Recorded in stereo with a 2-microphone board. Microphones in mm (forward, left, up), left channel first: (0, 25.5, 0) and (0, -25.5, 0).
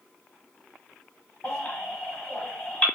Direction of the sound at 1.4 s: 25° left (ahead or behind).